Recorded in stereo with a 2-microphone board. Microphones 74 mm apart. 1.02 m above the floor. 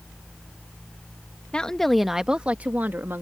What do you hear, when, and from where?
1.5 s a woman speaking: 15° left (ahead or behind); by 3.2 s 30° right (ahead or behind)